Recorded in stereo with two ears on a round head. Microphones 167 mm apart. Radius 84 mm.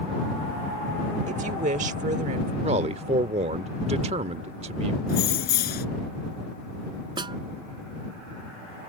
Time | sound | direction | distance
1.3 | a woman speaking | 40° right (ahead or behind) | ?
2.6 | a man speaking | 35° right (ahead or behind) | ?
5.1 | keys jangling | 55° left (ahead or behind) | ?
7.2 | a snare drum | 25° right (ahead or behind) | ?